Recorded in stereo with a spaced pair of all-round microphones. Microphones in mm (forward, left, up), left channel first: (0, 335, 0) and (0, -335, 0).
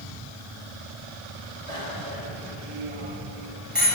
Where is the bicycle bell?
60° right (ahead or behind), 4.5 m; by 3.9 s 30° right (ahead or behind), 5.5 m.